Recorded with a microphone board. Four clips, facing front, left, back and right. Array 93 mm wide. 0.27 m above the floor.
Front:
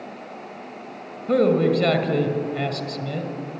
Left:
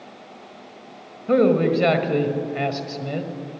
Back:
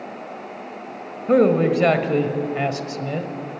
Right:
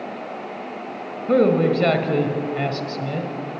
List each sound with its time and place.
1.3 s a man speaking: 175° left, 1.5 m